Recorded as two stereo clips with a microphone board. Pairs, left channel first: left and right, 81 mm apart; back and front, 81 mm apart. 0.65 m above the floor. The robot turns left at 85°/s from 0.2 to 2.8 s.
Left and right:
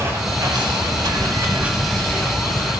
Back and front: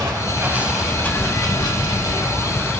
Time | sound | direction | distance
0.0 | running water | 35° right | 1.7 m